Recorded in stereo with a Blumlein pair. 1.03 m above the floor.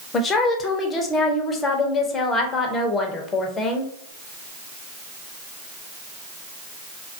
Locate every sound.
0.1 s a woman speaking: 20° left, 0.5 m